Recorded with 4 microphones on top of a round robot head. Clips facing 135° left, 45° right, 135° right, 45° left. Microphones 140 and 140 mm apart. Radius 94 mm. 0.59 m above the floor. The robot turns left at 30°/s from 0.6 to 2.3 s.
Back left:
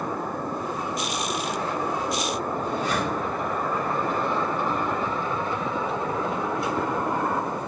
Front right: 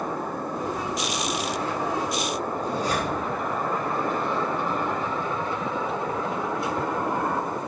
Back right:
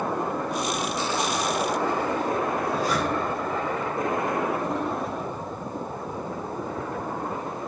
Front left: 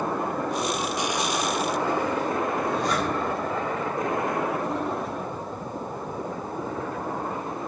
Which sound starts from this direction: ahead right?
A zipper, at 2.6 s.